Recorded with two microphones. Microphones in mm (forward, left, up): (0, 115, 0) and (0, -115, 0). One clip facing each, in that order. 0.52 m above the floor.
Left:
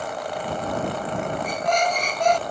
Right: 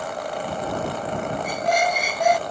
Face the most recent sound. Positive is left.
turn(degrees=-10)  # may be behind; listen again after turning